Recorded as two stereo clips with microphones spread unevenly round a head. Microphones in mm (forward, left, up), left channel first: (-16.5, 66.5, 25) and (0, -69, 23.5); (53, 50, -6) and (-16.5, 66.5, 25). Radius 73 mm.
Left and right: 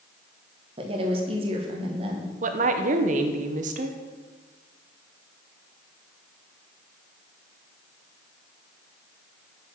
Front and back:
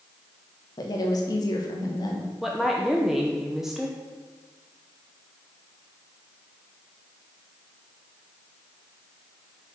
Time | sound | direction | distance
0.8 | a woman speaking | 35° right | 1.4 m
2.4 | a woman speaking | 95° right | 0.9 m